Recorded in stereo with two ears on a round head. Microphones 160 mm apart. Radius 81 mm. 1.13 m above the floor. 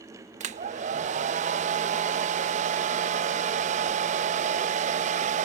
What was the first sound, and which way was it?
A hair dryer, 40° right (ahead or behind).